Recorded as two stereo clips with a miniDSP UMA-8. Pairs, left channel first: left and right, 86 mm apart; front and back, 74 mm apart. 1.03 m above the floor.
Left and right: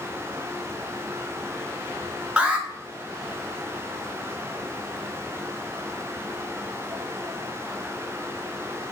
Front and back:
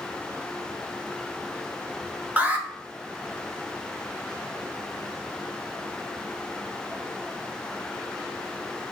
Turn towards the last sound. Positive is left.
turn(degrees=-145)